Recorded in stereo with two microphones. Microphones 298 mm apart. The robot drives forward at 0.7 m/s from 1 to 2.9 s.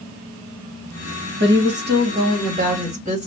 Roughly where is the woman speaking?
Right.